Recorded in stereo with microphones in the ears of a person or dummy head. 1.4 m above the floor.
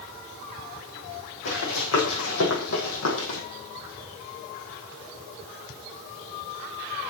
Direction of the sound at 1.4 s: 65° left (ahead or behind).